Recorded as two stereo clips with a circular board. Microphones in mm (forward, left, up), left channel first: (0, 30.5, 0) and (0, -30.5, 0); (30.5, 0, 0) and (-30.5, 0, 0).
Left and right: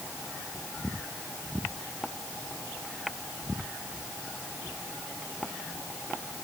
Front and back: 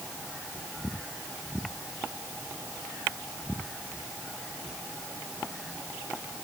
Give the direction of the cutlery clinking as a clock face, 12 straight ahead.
No cutlery clinking in this recording.